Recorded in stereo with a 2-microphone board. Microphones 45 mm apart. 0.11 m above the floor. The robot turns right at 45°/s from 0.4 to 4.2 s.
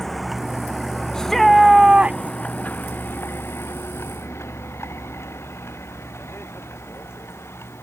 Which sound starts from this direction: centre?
A vehicle, at 0.0 s.